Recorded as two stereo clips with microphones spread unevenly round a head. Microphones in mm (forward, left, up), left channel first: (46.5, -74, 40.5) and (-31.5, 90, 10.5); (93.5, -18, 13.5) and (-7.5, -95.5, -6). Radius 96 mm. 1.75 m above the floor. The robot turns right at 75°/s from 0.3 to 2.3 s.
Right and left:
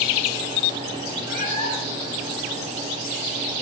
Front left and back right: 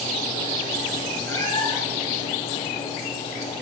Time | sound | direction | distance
1.3 | a cat meowing | 30° right | 6 m